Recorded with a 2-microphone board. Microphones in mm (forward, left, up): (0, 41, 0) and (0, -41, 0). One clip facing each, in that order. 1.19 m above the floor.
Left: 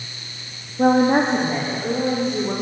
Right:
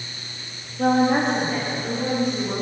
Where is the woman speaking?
25° left (ahead or behind), 2 m; by 2.5 s 30° left (ahead or behind), 4.5 m.